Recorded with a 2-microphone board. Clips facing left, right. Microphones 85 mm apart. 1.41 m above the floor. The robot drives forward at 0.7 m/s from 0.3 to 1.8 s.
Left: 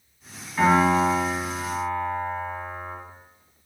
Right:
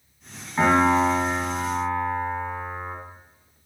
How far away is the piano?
About 1.8 m.